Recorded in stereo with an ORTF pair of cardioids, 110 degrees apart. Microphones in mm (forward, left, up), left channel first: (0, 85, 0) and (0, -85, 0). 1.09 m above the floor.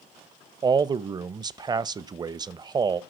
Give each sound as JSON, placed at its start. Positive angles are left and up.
{"t": 0.6, "sound": "a man speaking", "azimuth_deg": -25, "distance_m": 0.6}